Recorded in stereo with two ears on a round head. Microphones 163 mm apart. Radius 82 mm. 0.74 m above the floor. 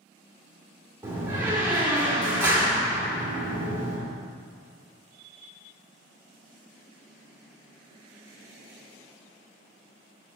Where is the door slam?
15° right (ahead or behind), 1.7 m.